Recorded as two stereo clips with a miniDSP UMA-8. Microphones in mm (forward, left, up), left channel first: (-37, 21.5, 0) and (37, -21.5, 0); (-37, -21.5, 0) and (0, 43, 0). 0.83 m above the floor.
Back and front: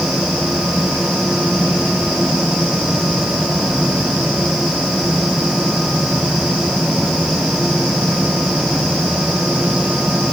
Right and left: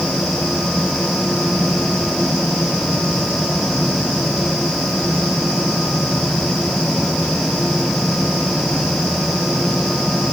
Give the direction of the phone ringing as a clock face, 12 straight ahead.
No phone ringing in this recording.